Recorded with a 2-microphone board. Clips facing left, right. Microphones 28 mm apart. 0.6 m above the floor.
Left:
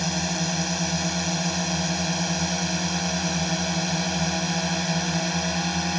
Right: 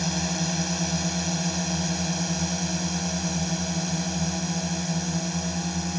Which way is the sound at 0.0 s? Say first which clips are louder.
Left 1 dB; 10° left (ahead or behind).